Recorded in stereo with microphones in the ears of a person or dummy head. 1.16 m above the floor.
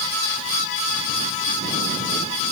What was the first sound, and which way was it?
Only background noise.